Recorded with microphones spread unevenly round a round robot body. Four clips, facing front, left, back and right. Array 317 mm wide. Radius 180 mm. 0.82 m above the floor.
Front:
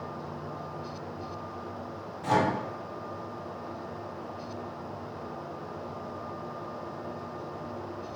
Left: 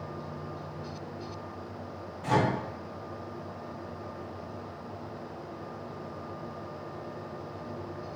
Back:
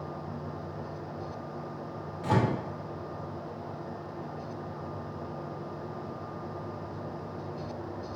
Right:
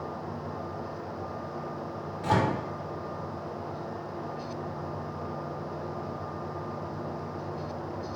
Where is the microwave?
110° right, 2.0 m.